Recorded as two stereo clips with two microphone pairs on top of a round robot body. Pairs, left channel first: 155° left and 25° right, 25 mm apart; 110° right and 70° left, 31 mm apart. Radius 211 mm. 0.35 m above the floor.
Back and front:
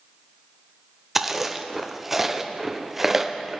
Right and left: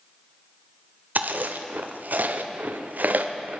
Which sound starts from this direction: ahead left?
Chewing, at 1.1 s.